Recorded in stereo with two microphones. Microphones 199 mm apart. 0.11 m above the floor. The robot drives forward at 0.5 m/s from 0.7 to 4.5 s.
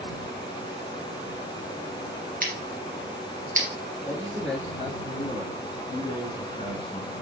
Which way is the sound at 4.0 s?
5° left (ahead or behind).